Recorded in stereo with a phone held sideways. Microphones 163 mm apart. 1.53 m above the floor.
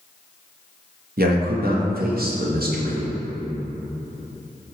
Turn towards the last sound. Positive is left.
turn(degrees=-70)  # may be behind; listen again after turning